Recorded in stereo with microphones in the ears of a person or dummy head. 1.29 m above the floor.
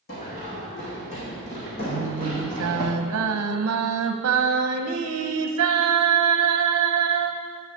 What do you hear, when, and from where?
0.1 s running footsteps: 50° left (ahead or behind), 4.5 m; by 2.9 s 20° left (ahead or behind), 3.5 m
1.9 s singing: 75° right (ahead or behind), 0.9 m